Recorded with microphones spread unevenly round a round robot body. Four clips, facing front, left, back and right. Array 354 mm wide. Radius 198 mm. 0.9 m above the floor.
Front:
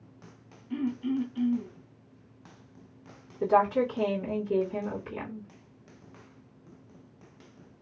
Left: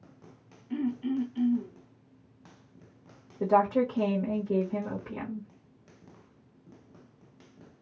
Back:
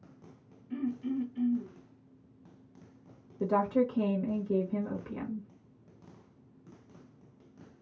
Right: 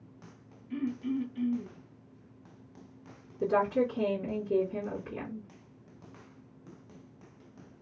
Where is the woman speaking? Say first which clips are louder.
Left 3 dB, front 4 dB; 135° left, 1.5 m.